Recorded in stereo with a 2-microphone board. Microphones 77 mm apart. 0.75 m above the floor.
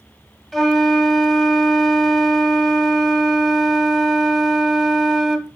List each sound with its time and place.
0.5 s a flute: 5° left (ahead or behind), 1.3 m